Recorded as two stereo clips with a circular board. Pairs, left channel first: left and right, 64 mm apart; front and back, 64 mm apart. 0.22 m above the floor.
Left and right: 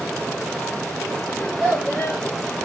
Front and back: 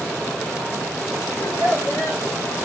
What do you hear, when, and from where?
1.4 s a child speaking: 5° left, 5.5 m